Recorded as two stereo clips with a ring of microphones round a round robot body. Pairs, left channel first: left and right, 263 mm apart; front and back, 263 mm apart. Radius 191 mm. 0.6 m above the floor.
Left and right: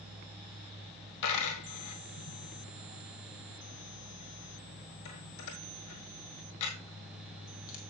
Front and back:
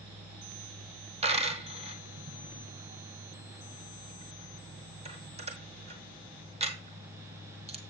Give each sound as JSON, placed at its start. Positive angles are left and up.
{"t": 1.2, "sound": "a dropped coin", "azimuth_deg": 110, "distance_m": 1.7}